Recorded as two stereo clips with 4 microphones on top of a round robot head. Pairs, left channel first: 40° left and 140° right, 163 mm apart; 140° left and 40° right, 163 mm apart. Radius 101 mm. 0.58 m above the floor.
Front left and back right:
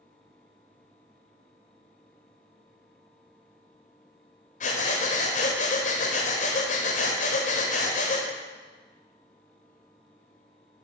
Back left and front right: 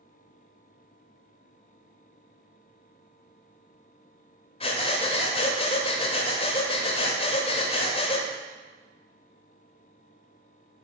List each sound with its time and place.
4.6 s breathing: 85° left, 1.4 m